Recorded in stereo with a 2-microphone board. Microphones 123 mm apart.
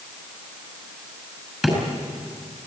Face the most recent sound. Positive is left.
turn(degrees=-5)  # may be behind; listen again after turning